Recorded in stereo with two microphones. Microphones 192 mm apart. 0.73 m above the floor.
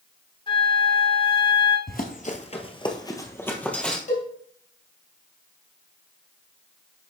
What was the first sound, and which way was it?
A flute, 30° left (ahead or behind).